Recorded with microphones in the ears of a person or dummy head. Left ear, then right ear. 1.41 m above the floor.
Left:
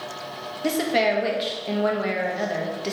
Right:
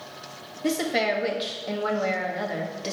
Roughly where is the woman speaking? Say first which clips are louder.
Left 3 dB; centre.